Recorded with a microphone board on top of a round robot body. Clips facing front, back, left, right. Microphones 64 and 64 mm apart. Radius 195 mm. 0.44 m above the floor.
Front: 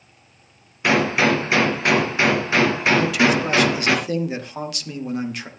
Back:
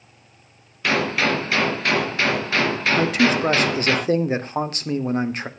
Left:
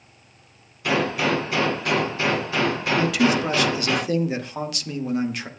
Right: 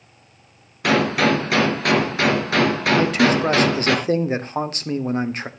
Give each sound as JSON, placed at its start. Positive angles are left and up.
{"t": 0.8, "sound": "a gunshot", "azimuth_deg": -70, "distance_m": 3.5}
{"t": 3.0, "sound": "a man speaking", "azimuth_deg": -135, "distance_m": 2.0}